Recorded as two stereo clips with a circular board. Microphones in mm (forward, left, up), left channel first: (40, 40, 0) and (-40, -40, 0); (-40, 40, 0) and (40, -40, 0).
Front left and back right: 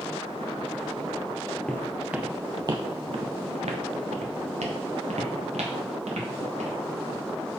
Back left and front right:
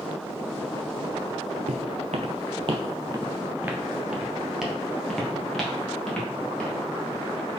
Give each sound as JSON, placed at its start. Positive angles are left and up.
{"t": 1.7, "sound": "footsteps", "azimuth_deg": -35, "distance_m": 0.7}